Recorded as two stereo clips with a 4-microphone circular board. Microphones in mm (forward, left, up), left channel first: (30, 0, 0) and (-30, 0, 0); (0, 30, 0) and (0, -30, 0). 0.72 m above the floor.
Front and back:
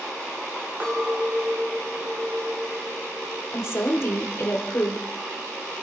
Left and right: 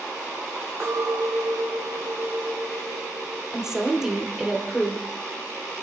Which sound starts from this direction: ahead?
A woman speaking, at 3.5 s.